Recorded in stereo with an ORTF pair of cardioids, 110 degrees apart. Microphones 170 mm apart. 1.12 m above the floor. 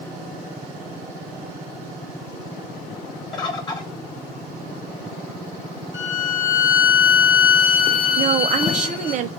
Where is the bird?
25° left, 0.9 m.